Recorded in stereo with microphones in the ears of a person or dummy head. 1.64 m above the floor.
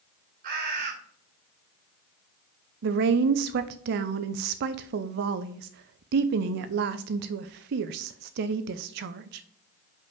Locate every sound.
0.4 s a bird: 50° right (ahead or behind), 2 m
2.8 s a woman speaking: 50° right (ahead or behind), 0.5 m